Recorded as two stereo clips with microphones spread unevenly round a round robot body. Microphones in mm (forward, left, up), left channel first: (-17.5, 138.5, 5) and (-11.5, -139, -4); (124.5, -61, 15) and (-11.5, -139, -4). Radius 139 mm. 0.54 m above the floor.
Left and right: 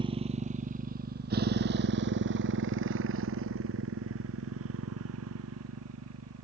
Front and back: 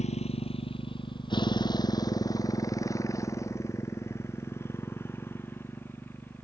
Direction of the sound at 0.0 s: 15° right.